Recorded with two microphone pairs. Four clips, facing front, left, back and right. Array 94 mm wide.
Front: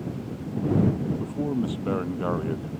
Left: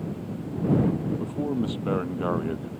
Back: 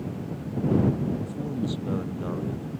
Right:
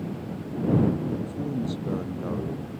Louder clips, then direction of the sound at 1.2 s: Left 2 dB, front 3 dB; 50° left.